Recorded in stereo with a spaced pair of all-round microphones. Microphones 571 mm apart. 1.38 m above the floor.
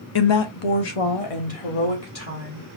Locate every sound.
0.1 s a woman speaking: 45° left (ahead or behind), 0.5 m; by 2.7 s 80° left, 2 m